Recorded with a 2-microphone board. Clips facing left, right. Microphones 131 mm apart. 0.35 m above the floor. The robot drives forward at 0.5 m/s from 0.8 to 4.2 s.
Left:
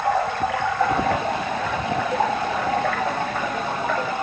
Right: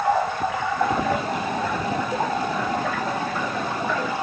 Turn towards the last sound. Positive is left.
turn(degrees=60)  # may be behind; listen again after turning